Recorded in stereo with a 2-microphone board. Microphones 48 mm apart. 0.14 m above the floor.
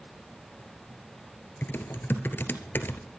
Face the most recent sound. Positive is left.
turn(degrees=45)  # may be behind; listen again after turning